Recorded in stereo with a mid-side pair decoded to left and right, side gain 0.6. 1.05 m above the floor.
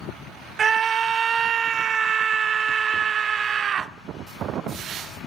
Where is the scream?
40° right, 0.7 m.